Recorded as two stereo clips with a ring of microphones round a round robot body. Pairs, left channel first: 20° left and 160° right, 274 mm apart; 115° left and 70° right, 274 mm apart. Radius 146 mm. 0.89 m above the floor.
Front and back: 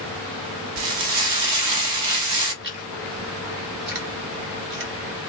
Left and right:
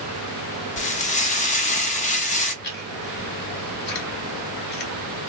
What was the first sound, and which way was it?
Frying, 175° left.